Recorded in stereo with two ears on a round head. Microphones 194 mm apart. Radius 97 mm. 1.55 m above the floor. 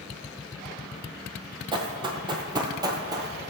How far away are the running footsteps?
About 1.9 m.